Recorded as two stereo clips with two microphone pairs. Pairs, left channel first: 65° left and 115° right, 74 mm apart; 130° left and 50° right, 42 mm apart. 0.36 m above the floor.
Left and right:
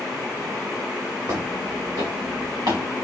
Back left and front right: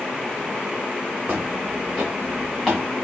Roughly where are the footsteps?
Right.